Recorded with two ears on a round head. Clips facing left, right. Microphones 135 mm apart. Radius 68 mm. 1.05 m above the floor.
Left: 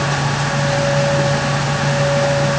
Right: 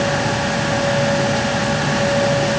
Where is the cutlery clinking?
No cutlery clinking in this recording.